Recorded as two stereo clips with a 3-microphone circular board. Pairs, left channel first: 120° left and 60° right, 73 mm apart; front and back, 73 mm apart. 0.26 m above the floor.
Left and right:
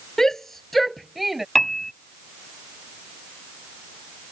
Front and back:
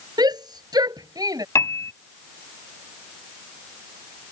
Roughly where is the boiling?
I don't hear boiling.